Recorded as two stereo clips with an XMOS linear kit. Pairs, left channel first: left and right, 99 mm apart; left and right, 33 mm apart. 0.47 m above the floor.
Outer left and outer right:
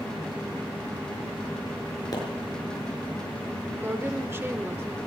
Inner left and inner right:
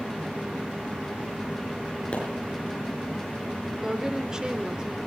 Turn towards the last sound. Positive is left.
turn(degrees=-25)  # may be behind; listen again after turning